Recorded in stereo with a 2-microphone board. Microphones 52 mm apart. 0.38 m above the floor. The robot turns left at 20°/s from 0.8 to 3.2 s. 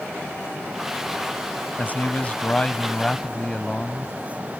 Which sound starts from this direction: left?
A man speaking, at 1.8 s.